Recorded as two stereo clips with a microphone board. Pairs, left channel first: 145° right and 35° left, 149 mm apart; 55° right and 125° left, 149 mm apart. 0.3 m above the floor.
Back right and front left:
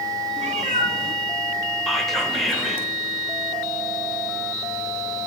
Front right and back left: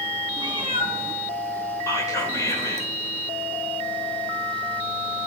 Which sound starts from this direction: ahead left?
A cat meowing, at 0.4 s.